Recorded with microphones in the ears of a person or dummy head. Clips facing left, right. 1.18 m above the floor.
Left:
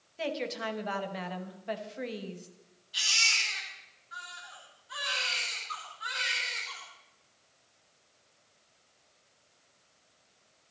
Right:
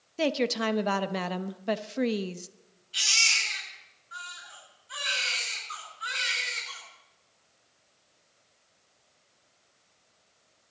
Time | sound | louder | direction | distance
0.2 | a woman speaking | right 7 dB | 65° right (ahead or behind) | 1.0 m
2.9 | a baby crying | right 2 dB | 35° right (ahead or behind) | 9 m